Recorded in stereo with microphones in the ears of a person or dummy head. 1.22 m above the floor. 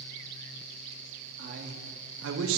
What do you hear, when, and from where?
1.4 s a man speaking: 50° right (ahead or behind), 1.7 m; by 2.6 s 80° right, 1.2 m